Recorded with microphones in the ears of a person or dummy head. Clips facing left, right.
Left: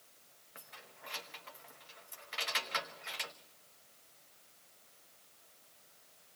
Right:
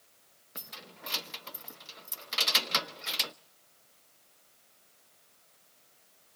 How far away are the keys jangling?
About 0.7 m.